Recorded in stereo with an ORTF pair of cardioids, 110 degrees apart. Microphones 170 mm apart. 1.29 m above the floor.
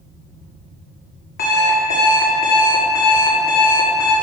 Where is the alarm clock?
65° left, 1.9 m.